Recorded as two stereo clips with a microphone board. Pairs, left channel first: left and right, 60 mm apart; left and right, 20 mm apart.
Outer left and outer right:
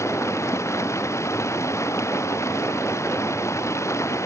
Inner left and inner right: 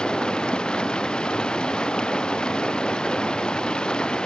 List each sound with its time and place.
0.0 s running water: 55° left (ahead or behind)